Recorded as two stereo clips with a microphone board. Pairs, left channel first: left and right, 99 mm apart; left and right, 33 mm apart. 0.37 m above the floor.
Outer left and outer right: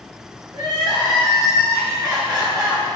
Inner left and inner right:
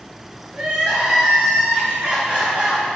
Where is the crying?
40° right (ahead or behind), 3 m.